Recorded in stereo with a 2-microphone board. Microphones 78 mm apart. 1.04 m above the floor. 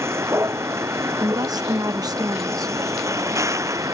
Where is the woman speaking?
55° right (ahead or behind).